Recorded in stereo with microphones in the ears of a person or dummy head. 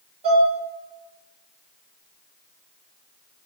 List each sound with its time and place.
0.2 s dishes clattering: 30° right (ahead or behind), 3 m